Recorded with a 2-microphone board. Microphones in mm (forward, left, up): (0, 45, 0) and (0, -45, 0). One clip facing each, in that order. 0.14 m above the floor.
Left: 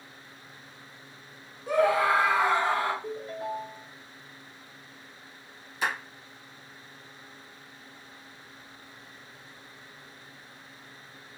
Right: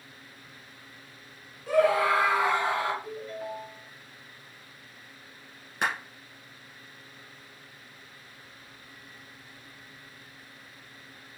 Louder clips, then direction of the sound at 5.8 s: Right 1 dB; 55° right (ahead or behind).